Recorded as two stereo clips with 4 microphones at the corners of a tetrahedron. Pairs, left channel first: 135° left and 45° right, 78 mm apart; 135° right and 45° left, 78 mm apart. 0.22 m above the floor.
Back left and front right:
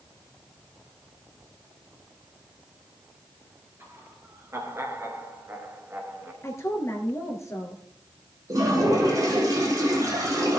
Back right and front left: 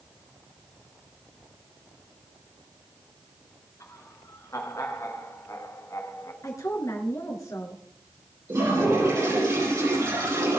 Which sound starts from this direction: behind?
A woman speaking, at 6.4 s.